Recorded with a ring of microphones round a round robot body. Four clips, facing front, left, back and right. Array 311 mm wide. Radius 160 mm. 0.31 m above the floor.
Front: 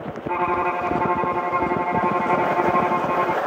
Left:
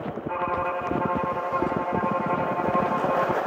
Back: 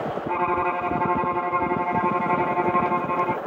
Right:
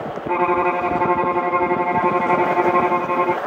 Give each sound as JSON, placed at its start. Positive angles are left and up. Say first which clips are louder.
{"t": 0.3, "sound": "a violin", "louder": "right 9 dB, front 3 dB", "azimuth_deg": -90}